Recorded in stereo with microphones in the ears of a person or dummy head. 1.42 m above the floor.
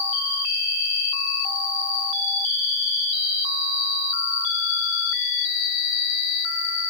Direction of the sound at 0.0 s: 70° left (ahead or behind).